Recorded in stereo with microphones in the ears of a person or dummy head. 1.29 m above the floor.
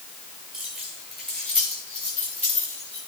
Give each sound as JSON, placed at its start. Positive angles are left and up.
{"t": 0.5, "sound": "keys jangling", "side_deg": 0, "distance_m": 4.5}